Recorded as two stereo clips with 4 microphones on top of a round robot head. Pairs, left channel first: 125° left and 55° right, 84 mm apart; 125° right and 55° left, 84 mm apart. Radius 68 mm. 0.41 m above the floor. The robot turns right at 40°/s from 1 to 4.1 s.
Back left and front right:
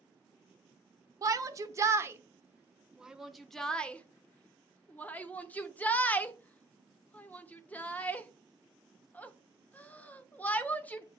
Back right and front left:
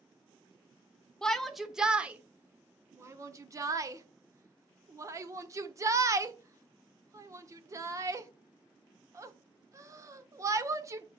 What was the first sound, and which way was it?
A shout, 50° right.